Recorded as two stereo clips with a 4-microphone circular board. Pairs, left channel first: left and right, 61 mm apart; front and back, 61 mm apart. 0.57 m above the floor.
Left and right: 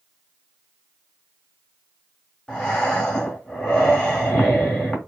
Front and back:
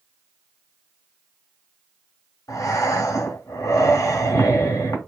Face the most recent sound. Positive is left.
turn(degrees=15)